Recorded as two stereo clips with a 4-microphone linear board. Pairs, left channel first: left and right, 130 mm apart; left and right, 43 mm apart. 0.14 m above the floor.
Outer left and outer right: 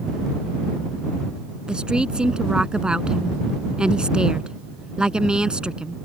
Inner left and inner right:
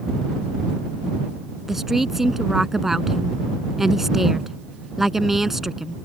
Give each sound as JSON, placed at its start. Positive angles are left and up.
{"t": 1.7, "sound": "a woman speaking", "side_deg": -5}